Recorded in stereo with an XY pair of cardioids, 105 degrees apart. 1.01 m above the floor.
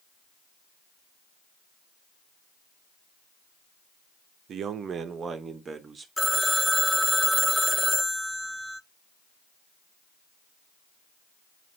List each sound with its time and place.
4.5 s a man speaking: 65° right, 0.8 m; by 6.1 s 35° right, 1.5 m
6.2 s a phone ringing: 5° left, 0.5 m